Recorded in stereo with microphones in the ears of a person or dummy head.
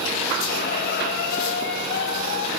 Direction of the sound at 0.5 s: 65° left (ahead or behind).